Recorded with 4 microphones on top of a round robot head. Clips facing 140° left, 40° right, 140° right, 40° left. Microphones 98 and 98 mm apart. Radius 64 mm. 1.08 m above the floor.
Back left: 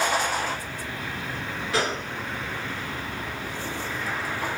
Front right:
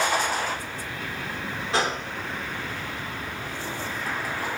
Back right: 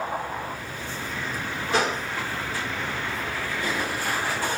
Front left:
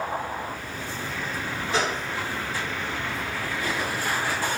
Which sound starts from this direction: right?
A gunshot, at 1.7 s.